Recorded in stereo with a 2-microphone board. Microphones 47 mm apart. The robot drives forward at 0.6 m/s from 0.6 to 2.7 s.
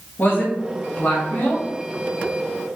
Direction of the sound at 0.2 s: 45° left (ahead or behind).